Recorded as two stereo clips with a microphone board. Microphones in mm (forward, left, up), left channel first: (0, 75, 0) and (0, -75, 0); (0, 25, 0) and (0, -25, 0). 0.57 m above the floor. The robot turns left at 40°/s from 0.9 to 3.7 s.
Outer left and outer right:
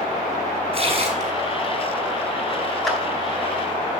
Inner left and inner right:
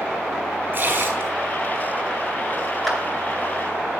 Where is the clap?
Centre (ahead or behind), 3.5 m; by 3.0 s 5° right (ahead or behind), 3.5 m.